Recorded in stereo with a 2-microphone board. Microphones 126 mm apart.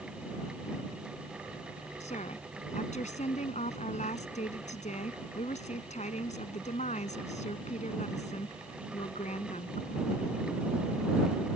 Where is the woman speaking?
70° left (ahead or behind).